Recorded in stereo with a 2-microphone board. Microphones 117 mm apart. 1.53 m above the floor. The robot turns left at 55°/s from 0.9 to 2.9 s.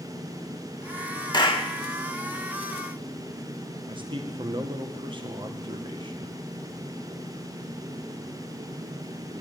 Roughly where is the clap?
Left.